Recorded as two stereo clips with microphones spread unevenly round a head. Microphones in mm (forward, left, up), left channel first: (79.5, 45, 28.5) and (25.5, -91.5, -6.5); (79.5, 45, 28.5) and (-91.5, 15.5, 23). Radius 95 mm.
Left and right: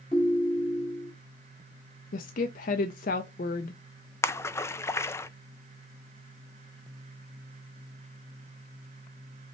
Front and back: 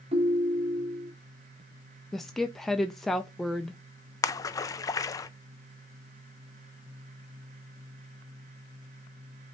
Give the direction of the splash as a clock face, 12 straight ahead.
12 o'clock.